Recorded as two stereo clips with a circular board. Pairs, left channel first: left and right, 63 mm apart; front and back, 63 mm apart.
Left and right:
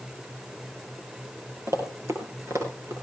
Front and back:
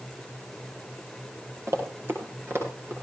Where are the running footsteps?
135° right, 6 m; by 2.9 s 130° right, 7 m.